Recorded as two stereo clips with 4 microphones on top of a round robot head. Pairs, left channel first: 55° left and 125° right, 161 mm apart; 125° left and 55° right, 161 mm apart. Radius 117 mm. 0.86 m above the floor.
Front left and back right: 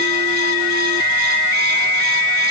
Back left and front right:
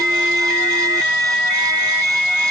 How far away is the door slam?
No door slam in this recording.